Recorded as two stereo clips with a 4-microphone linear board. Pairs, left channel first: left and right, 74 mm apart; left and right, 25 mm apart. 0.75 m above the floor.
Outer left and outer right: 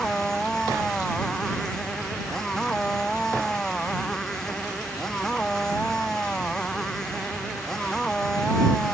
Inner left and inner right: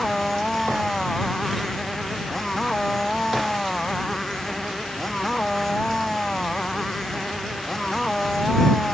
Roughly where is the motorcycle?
Centre.